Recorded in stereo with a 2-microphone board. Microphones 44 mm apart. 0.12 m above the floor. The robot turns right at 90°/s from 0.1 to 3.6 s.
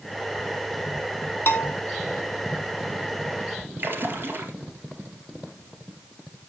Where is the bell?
60° left (ahead or behind), 1.1 m; by 1.8 s 80° left, 1.1 m.